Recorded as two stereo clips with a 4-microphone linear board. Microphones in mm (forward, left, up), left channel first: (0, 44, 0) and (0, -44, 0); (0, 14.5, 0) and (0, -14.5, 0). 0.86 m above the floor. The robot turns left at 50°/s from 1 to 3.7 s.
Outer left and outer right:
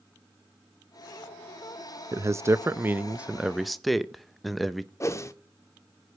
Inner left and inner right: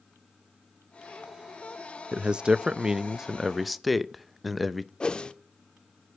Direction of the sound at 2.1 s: 100° right.